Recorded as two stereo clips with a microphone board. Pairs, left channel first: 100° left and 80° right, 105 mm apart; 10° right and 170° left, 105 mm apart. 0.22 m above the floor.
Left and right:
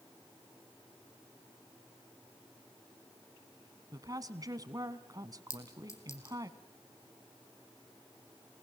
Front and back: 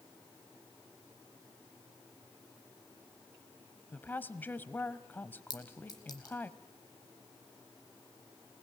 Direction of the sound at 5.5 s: 40° left.